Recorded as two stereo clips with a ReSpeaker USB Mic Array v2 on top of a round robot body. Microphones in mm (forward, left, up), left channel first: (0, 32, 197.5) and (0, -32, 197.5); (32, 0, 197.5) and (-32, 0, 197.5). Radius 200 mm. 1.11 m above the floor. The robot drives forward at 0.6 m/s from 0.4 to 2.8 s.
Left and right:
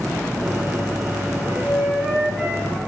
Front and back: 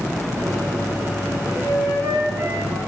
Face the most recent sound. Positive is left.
turn(degrees=-170)